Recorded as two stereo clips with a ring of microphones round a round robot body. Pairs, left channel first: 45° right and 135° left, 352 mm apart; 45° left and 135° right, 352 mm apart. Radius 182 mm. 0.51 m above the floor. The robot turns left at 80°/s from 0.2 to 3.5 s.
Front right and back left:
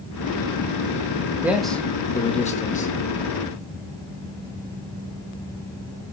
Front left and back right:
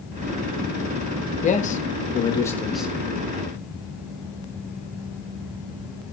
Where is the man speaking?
60° left, 1.0 m; by 2.9 s 60° right, 1.0 m.